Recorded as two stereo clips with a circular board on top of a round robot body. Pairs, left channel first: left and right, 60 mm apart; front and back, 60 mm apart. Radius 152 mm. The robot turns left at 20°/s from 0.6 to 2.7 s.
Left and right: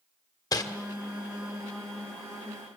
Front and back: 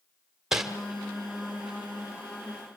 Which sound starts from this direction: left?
Crumpling, at 0.5 s.